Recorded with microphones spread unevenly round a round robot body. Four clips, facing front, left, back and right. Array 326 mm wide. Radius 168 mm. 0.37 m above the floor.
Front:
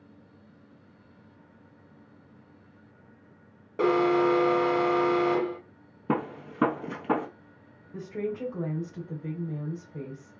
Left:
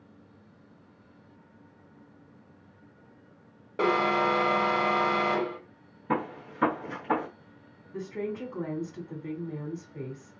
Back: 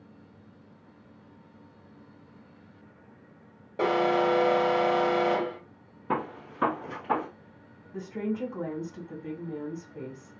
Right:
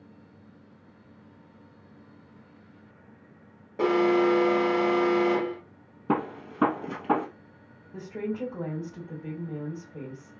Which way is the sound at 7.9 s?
35° right.